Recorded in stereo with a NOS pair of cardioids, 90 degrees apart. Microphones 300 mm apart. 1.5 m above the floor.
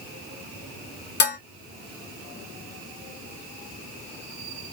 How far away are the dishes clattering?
About 1.5 m.